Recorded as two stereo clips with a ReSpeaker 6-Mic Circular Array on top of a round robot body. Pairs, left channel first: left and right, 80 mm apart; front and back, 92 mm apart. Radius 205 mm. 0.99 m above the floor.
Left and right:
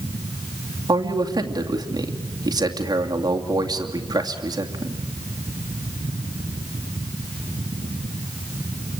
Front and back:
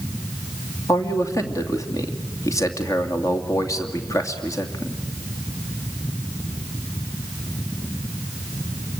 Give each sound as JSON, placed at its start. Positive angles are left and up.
{"t": 0.9, "sound": "a man speaking", "azimuth_deg": -55, "distance_m": 2.5}